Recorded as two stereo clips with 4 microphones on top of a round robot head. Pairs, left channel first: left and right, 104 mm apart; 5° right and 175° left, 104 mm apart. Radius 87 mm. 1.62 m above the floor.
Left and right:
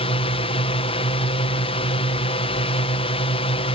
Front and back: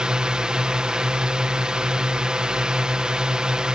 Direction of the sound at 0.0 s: 90° left.